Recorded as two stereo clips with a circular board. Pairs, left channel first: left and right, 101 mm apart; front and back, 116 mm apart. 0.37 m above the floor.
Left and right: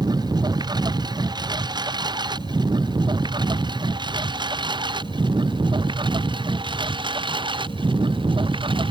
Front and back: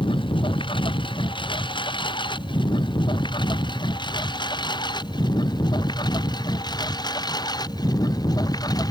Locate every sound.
0.0 s a lawn mower: 45° right; by 8.9 s 55° right